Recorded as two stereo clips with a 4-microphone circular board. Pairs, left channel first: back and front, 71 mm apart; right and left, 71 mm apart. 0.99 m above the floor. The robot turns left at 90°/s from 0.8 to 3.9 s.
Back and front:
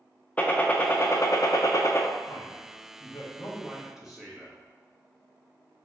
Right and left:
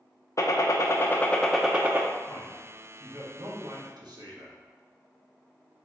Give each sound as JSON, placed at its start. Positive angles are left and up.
{"t": 0.4, "sound": "a gunshot", "azimuth_deg": -115, "distance_m": 0.5}
{"t": 2.3, "sound": "a man speaking", "azimuth_deg": -130, "distance_m": 1.1}